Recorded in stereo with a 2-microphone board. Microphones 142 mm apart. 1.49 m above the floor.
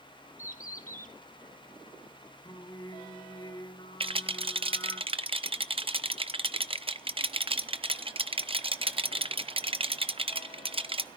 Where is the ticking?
I don't hear ticking.